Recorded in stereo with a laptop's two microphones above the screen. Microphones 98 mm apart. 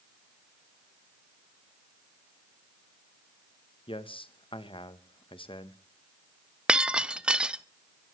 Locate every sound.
3.9 s a man speaking: 65° left (ahead or behind), 0.9 m
6.7 s breaking glass: 10° right (ahead or behind), 0.7 m